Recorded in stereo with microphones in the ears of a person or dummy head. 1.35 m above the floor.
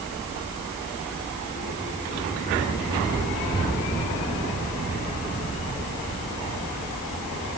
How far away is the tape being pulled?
No tape being pulled in this recording.